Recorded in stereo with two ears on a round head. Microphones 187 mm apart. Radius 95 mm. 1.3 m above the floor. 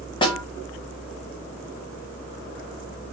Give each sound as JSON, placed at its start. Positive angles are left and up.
{"t": 0.2, "sound": "a snare drum", "side_deg": 25, "distance_m": 1.2}